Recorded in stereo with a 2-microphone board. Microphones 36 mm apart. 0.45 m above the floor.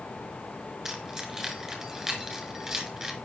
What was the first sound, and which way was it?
Keys jangling, 5° right (ahead or behind).